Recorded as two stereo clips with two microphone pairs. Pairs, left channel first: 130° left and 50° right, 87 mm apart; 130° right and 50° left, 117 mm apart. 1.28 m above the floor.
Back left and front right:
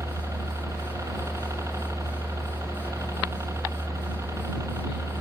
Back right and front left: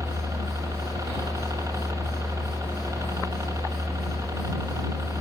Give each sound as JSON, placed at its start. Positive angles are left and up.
{"t": 0.0, "sound": "a helicopter", "azimuth_deg": -5}